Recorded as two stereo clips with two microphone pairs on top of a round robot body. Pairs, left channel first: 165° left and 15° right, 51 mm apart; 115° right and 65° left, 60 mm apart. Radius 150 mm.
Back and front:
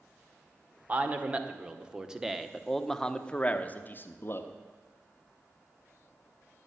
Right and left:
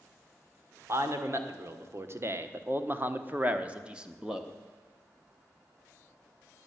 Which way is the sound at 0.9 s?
35° left.